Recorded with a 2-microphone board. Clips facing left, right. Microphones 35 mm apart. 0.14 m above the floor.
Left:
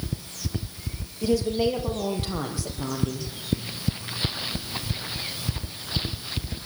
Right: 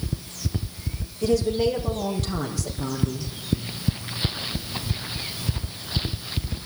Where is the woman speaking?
15° left (ahead or behind), 4.5 m; by 3.3 s 35° left (ahead or behind), 4.5 m.